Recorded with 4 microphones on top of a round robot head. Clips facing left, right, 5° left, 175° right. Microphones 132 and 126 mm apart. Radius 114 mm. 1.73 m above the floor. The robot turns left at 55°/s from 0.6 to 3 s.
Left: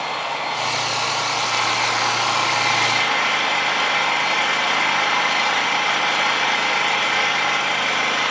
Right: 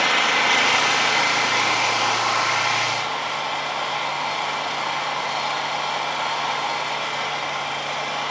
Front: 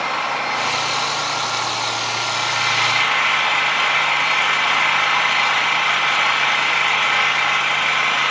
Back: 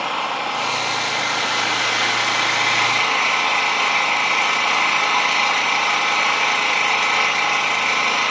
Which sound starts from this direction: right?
An engine running, at 0.0 s.